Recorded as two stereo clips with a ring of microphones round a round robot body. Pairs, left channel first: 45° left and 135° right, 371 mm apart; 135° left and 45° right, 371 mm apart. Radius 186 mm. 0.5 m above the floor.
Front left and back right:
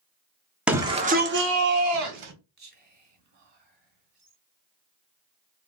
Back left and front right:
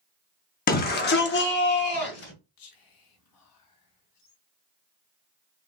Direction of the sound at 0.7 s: 145° left.